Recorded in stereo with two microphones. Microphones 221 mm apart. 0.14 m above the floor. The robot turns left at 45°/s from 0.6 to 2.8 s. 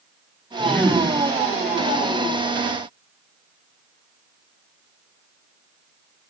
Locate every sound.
0.6 s a man speaking: centre (ahead or behind), 9.5 m; by 1.1 s 25° left (ahead or behind), 9.5 m